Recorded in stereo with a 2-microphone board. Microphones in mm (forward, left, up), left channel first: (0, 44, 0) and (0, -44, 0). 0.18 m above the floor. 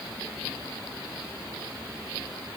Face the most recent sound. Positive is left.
No sound to turn to.